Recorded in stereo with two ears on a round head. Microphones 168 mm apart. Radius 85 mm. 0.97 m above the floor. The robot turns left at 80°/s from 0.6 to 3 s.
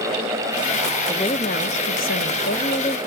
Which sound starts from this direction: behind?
A woman speaking, at 1.1 s.